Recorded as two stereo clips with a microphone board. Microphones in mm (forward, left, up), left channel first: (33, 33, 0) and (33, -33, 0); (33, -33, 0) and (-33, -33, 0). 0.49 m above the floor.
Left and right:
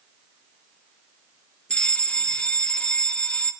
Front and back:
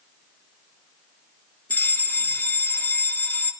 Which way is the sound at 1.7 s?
30° left.